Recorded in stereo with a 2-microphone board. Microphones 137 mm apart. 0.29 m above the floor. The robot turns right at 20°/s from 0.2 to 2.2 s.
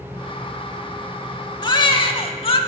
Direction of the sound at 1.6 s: 30° left (ahead or behind).